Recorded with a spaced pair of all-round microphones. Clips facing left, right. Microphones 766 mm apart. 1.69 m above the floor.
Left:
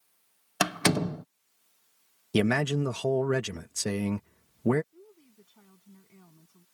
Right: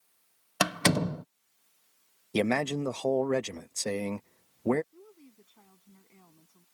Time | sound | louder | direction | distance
0.6 | a door slam | left 1 dB | 5° right (ahead or behind) | ?
2.3 | a man speaking | left 2 dB | 50° left (ahead or behind) | ?
4.9 | a woman speaking | right 1 dB | 45° left (ahead or behind) | ?